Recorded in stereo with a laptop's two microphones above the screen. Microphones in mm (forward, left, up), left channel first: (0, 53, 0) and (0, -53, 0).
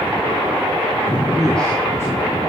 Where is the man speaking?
60° right (ahead or behind), 0.5 m; by 2.5 s 30° left (ahead or behind), 2 m.